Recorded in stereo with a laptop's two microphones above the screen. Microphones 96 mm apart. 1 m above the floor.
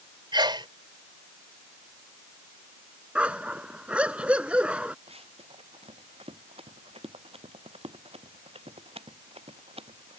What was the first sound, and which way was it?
A sneeze, 50° right (ahead or behind).